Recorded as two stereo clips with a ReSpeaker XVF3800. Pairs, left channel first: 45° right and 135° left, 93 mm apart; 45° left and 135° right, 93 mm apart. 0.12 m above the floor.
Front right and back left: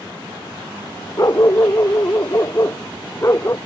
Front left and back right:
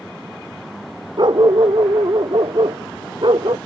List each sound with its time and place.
1.2 s a dog barking: 100° right; by 3.6 s 105° right